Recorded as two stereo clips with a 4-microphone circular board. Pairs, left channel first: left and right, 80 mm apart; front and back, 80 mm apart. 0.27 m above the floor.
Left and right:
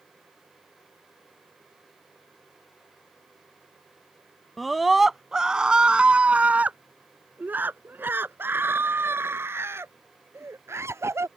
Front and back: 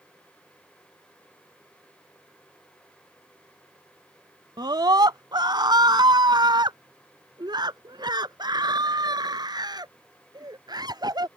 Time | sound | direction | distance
4.6 | a scream | straight behind | ?